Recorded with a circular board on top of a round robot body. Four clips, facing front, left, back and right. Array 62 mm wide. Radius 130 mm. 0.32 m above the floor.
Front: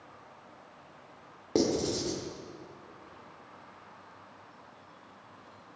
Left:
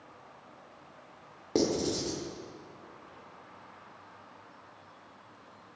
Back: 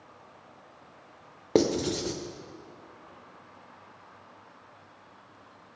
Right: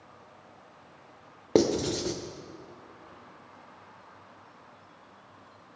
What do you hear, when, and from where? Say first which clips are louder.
1.6 s writing: right 4 dB, back 3 dB; 130° right, 1.8 m